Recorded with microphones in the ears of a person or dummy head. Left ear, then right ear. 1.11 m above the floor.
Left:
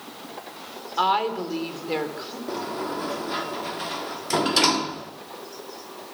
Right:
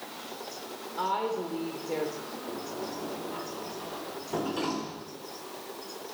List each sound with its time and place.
1.0 s a woman speaking: 50° left (ahead or behind), 4.5 m
2.5 s a sliding door: 70° left (ahead or behind), 1.1 m